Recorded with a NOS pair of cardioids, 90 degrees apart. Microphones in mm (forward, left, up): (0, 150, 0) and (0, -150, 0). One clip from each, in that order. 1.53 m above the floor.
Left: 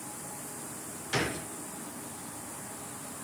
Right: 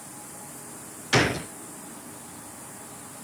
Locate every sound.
1.1 s a gunshot: 55° right, 0.9 m